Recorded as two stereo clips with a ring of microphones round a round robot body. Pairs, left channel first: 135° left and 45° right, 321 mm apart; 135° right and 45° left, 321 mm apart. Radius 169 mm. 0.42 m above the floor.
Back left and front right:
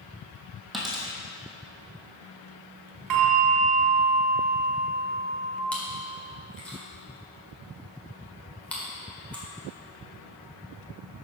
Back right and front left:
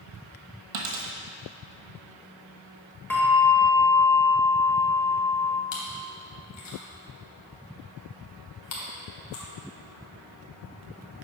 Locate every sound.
0.7 s a dropped coin: 45° left, 1.5 m
3.1 s a bell: 50° right, 1.2 m
5.7 s chewing: 140° right, 1.8 m